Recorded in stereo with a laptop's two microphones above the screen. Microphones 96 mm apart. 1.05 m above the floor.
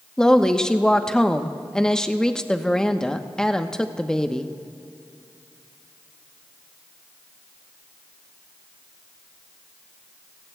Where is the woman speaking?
5° left (ahead or behind), 0.9 m.